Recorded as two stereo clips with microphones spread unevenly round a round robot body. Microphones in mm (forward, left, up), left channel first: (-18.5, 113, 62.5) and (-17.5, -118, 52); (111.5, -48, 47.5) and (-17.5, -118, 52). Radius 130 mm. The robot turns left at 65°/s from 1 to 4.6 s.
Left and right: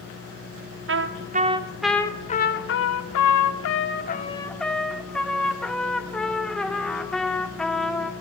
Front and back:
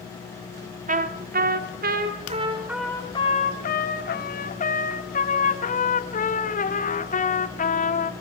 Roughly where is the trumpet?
Behind right.